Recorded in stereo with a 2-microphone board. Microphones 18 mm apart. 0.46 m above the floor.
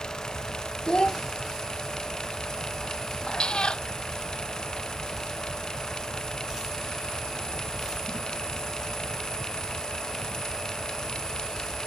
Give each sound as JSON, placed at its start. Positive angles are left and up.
{"t": 0.9, "sound": "a child speaking", "side_deg": 75}
{"t": 3.3, "sound": "a cat meowing", "side_deg": 75}